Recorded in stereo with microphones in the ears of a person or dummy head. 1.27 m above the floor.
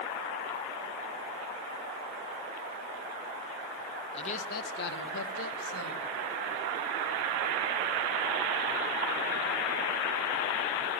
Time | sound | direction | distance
4.1 | a man speaking | 30° left (ahead or behind) | 1.0 m